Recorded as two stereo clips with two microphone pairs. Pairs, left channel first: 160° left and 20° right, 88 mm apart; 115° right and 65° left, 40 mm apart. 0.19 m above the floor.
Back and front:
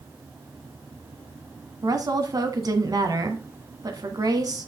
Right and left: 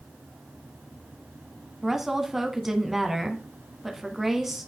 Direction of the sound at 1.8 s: 15° right.